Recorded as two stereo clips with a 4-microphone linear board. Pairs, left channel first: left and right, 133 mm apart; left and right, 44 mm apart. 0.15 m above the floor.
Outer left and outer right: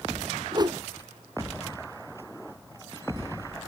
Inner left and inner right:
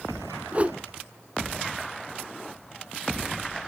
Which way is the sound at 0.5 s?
35° right (ahead or behind).